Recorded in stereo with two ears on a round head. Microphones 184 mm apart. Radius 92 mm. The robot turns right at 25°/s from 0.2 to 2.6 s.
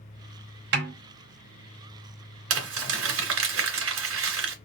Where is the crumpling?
70° right (ahead or behind), 2.5 m.